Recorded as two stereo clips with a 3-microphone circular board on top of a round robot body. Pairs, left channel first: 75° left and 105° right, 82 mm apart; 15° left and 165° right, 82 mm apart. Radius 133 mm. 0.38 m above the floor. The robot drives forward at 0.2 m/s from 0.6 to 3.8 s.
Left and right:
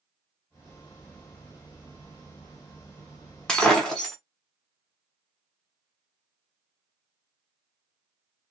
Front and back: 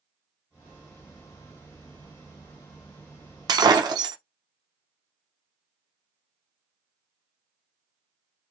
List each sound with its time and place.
3.5 s breaking glass: 160° left, 0.7 m